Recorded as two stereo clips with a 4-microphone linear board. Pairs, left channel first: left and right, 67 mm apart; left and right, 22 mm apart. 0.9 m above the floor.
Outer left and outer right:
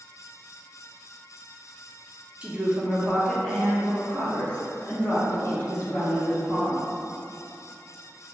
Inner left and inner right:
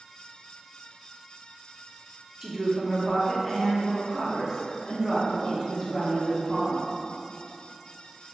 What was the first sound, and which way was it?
A woman speaking, 20° right (ahead or behind).